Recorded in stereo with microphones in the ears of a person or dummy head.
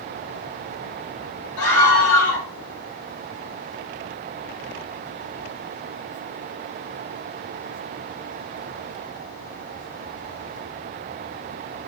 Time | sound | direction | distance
1.6 | a scream | 80° left | 8.5 m